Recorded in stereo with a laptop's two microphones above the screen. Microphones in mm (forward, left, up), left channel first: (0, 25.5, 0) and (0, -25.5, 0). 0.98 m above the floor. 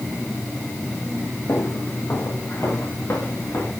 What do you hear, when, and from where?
1.5 s footsteps: 45° left (ahead or behind), 8 m; by 3.7 s 50° left (ahead or behind), 9.5 m